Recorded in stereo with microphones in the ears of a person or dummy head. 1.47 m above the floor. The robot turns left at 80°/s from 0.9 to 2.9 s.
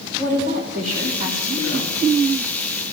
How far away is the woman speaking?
About 3 m.